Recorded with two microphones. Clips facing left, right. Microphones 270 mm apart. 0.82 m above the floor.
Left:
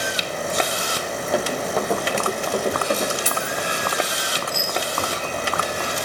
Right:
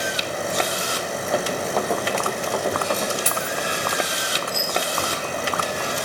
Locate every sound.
1.3 s running footsteps: centre (ahead or behind), 1.9 m; by 3.1 s 25° left (ahead or behind), 3 m
3.2 s keys jangling: 65° right (ahead or behind), 3 m